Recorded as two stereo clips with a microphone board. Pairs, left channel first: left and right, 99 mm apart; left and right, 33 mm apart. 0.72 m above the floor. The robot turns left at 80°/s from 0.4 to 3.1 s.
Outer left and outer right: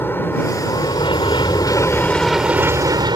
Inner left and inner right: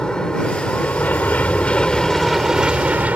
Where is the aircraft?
150° left; by 3.2 s 65° right.